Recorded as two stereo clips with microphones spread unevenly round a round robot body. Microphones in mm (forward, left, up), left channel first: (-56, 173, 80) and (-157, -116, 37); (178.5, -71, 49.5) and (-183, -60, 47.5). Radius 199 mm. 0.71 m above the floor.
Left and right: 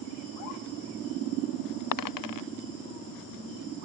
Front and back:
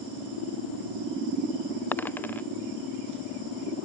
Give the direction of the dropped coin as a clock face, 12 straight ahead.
9 o'clock.